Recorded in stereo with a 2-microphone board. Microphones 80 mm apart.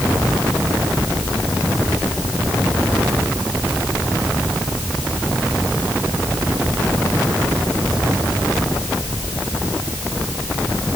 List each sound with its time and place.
Only background noise.